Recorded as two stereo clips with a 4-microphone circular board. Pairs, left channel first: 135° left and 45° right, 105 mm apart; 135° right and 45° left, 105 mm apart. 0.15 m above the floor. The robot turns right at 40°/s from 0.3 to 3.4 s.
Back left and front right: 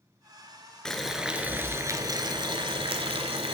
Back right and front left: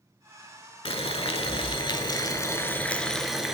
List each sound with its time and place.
0.8 s boiling: 140° right, 0.6 m; by 3.5 s 40° right, 0.6 m